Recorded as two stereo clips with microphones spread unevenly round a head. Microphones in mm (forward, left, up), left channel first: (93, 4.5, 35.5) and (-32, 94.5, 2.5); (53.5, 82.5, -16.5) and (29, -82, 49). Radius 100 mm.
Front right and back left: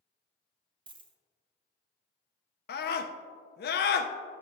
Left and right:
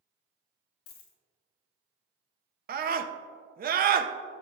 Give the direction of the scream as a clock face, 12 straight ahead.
2 o'clock.